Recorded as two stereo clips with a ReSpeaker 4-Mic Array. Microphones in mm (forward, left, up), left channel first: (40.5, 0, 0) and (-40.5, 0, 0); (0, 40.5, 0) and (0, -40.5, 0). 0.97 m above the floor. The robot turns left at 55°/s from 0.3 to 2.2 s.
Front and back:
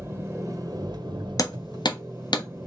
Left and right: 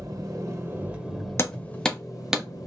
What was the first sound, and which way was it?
An engine running, 130° right.